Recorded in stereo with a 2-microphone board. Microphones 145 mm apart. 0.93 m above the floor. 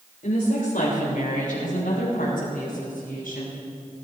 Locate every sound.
0.2 s a woman speaking: 75° left (ahead or behind), 2.5 m; by 3.6 s 80° left, 5 m